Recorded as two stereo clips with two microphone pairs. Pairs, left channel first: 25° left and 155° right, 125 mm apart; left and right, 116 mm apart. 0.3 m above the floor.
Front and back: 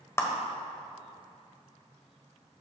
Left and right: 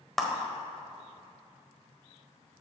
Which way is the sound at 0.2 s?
5° left.